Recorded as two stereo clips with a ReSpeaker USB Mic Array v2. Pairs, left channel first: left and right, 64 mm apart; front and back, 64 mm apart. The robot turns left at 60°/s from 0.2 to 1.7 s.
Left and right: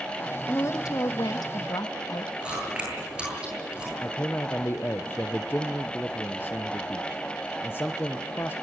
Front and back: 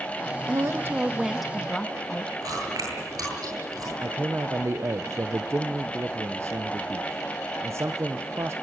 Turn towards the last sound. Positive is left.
turn(degrees=140)